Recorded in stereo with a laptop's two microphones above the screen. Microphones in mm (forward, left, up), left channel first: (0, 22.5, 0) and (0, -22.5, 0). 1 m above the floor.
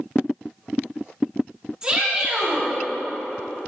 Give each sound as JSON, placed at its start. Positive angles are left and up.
{"t": 1.8, "sound": "a shout", "side_deg": -15, "distance_m": 3.0}